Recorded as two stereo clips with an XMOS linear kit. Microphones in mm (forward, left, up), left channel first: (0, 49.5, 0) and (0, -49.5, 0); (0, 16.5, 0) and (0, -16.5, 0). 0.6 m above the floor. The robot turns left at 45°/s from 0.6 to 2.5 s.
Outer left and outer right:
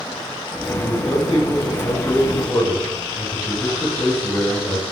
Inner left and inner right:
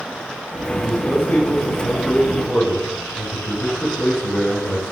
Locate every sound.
0.7 s a man speaking: 95° left, 6.5 m; by 4.8 s 15° left, 6.5 m